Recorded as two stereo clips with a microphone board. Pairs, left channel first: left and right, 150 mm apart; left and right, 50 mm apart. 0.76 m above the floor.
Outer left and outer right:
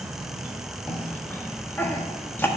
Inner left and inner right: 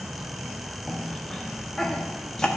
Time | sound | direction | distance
0.9 | a cough | 15° left (ahead or behind) | 1.3 m